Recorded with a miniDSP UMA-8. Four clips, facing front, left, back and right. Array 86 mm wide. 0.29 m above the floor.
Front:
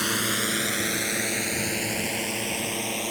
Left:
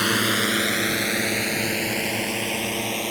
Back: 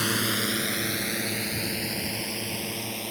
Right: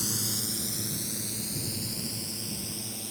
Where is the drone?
85° left; by 3.1 s 70° left.